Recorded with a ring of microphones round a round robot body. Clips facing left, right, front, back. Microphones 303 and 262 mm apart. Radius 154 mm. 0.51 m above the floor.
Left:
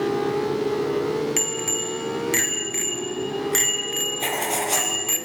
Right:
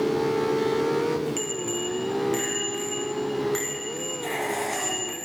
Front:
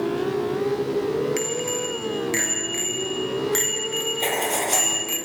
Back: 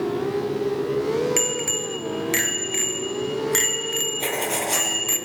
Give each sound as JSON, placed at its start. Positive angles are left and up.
{"t": 1.4, "sound": "a bicycle bell", "azimuth_deg": 140, "distance_m": 7.5}
{"t": 4.2, "sound": "writing", "azimuth_deg": 100, "distance_m": 7.5}